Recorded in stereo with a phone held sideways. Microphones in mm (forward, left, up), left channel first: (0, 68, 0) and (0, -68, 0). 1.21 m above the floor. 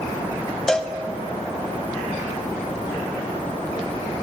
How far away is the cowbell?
About 0.5 m.